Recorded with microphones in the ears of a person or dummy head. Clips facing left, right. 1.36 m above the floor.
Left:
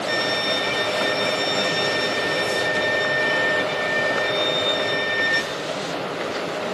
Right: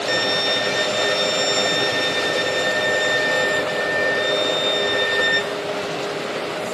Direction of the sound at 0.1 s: 70° right (ahead or behind).